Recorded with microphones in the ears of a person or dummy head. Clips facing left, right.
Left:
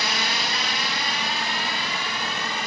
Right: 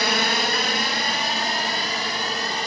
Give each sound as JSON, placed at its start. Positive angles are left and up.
{"t": 0.0, "sound": "a drone", "side_deg": -45}